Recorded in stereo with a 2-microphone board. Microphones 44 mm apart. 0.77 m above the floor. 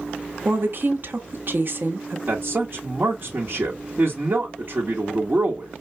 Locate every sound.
0.5 s a woman speaking: 50° right (ahead or behind), 1.2 m
2.3 s a man speaking: 45° right (ahead or behind), 1.4 m